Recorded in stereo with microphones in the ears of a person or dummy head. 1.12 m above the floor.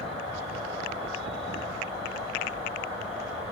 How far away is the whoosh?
About 1.7 m.